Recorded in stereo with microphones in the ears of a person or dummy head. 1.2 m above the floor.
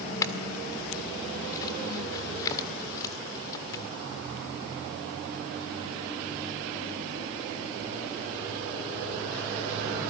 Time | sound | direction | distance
0.2 | a clink | 20° left (ahead or behind) | 1.7 m